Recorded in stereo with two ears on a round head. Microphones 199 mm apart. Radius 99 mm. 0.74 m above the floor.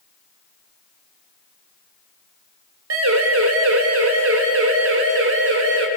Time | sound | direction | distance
2.9 | a siren | 70° right (ahead or behind) | 3.5 m